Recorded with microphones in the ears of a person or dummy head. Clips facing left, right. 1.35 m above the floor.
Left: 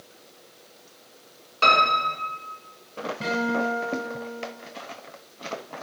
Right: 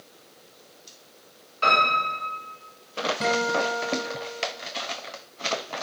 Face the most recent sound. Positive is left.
turn(degrees=-65)  # may be behind; listen again after turning